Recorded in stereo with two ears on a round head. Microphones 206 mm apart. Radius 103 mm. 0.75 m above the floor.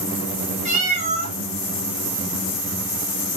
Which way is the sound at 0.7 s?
30° right (ahead or behind).